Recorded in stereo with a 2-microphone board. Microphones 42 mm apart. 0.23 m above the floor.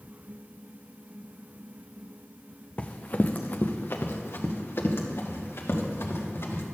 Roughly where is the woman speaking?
No woman speaking in this recording.